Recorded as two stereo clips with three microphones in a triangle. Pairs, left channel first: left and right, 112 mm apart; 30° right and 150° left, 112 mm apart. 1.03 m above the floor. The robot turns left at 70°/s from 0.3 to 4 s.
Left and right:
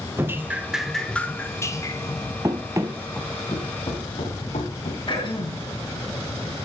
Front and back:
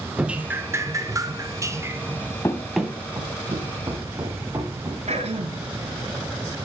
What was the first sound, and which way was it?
Dripping, 140° right.